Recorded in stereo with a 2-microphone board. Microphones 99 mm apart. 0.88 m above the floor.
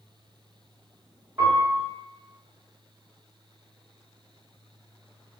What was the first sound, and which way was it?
A piano, 20° right (ahead or behind).